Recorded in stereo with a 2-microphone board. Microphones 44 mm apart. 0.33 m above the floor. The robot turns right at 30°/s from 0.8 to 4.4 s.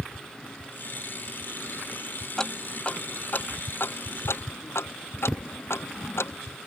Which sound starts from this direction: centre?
Ticking, at 2.4 s.